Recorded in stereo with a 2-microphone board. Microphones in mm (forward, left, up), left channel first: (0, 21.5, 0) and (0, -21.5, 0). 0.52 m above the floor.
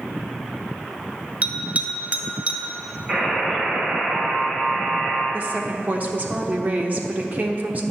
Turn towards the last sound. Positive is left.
turn(degrees=-40)  # may be behind; listen again after turning